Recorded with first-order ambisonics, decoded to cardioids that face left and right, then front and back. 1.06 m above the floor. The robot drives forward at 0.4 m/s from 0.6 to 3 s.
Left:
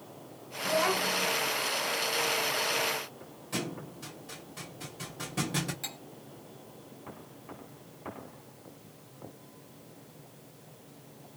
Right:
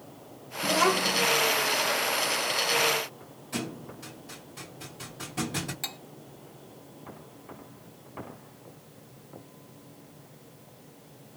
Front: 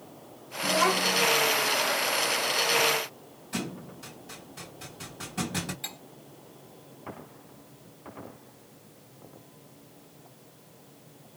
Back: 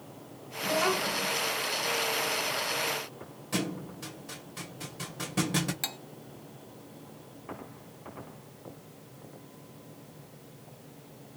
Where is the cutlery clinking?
160° right, 0.9 m.